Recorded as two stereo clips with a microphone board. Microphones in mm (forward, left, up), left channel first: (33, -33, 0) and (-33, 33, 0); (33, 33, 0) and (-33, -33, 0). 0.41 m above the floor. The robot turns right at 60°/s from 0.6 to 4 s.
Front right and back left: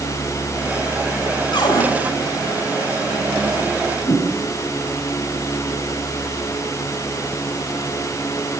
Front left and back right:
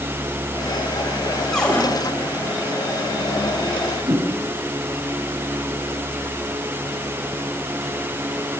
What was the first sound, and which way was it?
A cupboard door, 40° right.